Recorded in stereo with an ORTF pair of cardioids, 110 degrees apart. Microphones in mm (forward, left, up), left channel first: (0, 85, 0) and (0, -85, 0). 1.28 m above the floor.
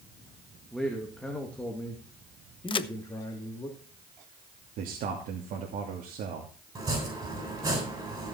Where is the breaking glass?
No breaking glass in this recording.